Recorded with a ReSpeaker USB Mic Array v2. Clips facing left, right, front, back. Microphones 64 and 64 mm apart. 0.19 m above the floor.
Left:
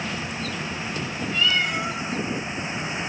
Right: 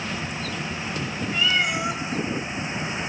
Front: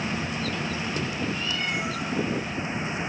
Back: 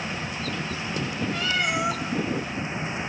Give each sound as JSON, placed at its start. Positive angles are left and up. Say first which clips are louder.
{"t": 1.3, "sound": "a cat meowing", "louder": "even, back 4 dB", "azimuth_deg": -170, "distance_m": 4.0}